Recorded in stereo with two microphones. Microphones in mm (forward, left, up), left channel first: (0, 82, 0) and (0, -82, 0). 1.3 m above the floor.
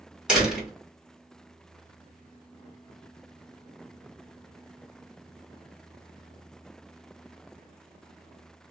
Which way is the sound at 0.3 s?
5° right (ahead or behind).